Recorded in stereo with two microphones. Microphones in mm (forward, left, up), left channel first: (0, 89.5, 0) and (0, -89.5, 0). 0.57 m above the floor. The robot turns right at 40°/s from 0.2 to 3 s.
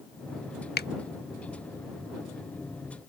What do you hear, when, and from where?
0.8 s a finger snap: 65° left (ahead or behind)